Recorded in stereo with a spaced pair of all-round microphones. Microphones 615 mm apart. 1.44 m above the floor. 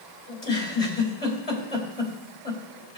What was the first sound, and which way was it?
A giggle, 75° left (ahead or behind).